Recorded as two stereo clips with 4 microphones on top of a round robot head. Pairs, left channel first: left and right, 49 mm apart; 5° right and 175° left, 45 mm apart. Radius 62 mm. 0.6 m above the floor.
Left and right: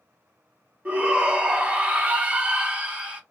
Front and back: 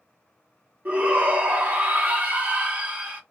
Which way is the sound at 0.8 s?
145° right.